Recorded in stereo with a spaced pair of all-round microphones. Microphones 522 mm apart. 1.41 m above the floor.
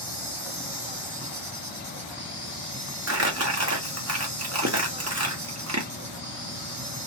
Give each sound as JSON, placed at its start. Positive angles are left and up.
{"t": 0.0, "sound": "an insect", "side_deg": -40, "distance_m": 1.6}
{"t": 3.1, "sound": "crumpling", "side_deg": -30, "distance_m": 0.8}